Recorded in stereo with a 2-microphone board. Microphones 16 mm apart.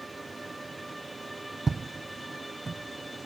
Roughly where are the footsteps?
Centre.